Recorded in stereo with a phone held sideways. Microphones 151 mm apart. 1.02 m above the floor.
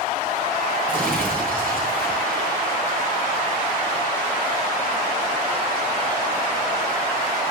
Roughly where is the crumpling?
Centre.